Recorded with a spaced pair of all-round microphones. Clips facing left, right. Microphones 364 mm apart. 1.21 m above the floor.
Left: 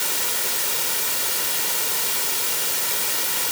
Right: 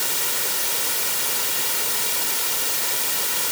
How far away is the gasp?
No gasp in this recording.